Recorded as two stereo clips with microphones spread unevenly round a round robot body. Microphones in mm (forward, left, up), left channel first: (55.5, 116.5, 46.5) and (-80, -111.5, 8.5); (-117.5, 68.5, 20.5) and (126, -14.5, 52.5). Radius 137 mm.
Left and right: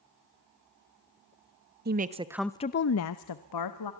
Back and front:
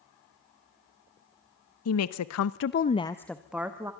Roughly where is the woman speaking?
Behind.